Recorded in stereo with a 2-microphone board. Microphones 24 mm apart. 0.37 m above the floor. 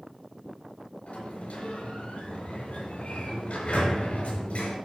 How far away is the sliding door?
About 5 m.